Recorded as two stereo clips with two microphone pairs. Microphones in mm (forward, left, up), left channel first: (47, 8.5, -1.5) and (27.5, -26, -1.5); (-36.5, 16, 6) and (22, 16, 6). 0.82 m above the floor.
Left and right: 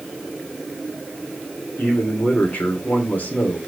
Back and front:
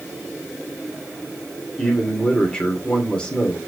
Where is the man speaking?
105° left, 2.5 m.